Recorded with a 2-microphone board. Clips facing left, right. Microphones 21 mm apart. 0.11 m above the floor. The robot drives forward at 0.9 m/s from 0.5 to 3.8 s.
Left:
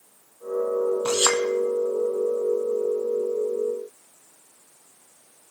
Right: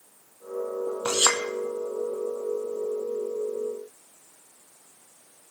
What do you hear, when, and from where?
1.1 s a clink: 30° right (ahead or behind), 2 m; by 1.4 s 25° right (ahead or behind), 2.5 m